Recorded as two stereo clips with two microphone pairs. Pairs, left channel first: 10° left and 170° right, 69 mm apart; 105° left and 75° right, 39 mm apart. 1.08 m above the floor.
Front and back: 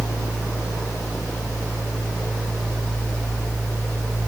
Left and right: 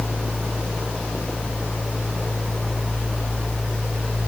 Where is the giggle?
I don't hear a giggle.